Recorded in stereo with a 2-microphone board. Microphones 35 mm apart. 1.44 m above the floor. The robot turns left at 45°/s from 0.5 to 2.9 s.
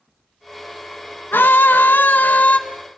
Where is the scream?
95° left, 1.5 m; by 2.6 s 40° left, 1.5 m.